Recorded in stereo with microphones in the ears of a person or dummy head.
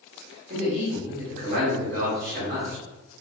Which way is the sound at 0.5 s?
45° right (ahead or behind).